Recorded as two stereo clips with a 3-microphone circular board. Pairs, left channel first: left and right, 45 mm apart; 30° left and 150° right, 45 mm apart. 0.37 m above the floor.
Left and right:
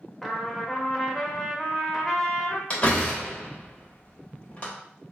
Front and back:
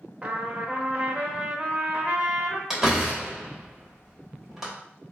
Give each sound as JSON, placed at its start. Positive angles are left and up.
{"t": 0.2, "sound": "a trumpet", "azimuth_deg": 180, "distance_m": 0.6}
{"t": 2.7, "sound": "a door slam", "azimuth_deg": 135, "distance_m": 1.2}